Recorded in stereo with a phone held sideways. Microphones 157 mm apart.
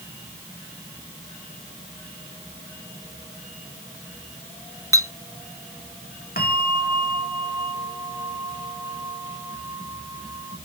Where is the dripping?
I don't hear dripping.